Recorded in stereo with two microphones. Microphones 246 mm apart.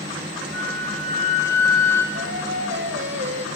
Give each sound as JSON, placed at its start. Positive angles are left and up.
{"t": 0.5, "sound": "a flute", "side_deg": -50, "distance_m": 3.0}
{"t": 2.1, "sound": "singing", "side_deg": -50, "distance_m": 2.0}